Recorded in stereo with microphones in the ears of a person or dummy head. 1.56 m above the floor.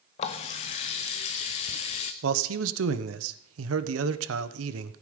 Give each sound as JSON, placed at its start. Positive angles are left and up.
{"t": 0.2, "sound": "a running tap", "side_deg": 30, "distance_m": 0.8}
{"t": 2.2, "sound": "a man speaking", "side_deg": -85, "distance_m": 1.0}